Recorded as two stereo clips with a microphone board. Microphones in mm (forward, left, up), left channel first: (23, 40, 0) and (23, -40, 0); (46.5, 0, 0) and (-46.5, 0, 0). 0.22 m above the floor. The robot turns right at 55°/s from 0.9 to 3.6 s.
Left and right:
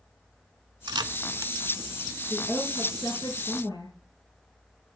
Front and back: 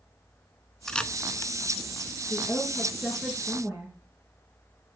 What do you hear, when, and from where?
0.9 s a camera shutter: 85° right, 0.6 m; by 2.2 s 10° right, 0.6 m
2.3 s a woman speaking: 50° left, 3 m; by 3.9 s 120° left, 3 m